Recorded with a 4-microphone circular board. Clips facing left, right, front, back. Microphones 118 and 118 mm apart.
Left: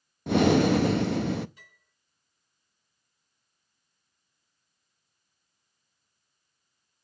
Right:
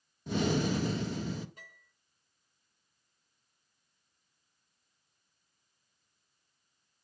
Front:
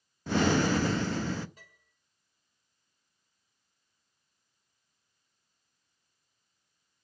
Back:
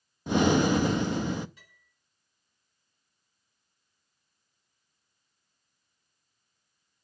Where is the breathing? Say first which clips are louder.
Left 10 dB, back 3 dB; 105° left, 0.6 m.